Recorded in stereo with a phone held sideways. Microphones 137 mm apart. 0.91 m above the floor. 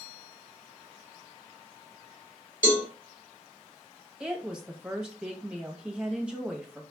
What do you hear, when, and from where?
2.6 s a cowbell: 75° left (ahead or behind), 2 m
4.2 s a woman speaking: 5° right (ahead or behind), 1.0 m